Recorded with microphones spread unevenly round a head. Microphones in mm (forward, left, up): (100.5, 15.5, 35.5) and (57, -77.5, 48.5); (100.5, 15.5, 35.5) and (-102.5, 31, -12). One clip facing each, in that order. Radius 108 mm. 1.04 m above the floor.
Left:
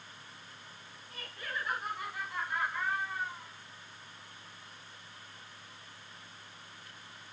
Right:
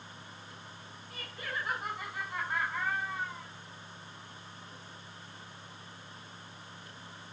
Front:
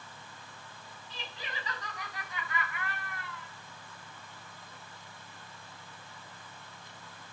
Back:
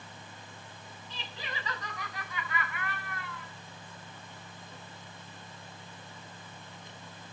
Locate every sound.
1.1 s laughter: 160° left, 6 m; by 3.5 s straight behind, 6.5 m